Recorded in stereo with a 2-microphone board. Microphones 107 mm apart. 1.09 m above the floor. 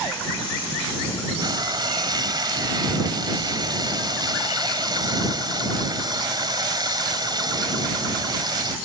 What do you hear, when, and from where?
1.4 s frying: 40° right (ahead or behind)